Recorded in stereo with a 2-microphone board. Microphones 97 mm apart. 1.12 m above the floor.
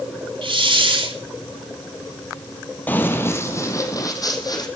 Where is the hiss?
65° right (ahead or behind), 3 m.